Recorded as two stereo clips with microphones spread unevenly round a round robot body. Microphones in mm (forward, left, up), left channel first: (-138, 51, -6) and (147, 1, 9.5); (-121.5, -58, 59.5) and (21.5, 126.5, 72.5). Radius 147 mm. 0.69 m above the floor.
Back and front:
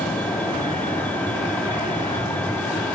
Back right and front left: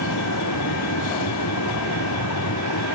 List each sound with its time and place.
0.0 s a vehicle: 105° right